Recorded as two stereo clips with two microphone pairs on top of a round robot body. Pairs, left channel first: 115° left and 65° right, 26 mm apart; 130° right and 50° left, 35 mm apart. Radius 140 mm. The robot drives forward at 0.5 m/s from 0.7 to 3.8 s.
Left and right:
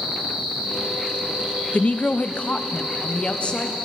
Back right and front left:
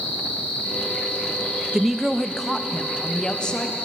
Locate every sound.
0.0 s an insect: 105° right, 7 m; by 3.9 s 115° right, 7.5 m
1.7 s a woman speaking: 125° left, 0.5 m; by 3.7 s 165° left, 1.3 m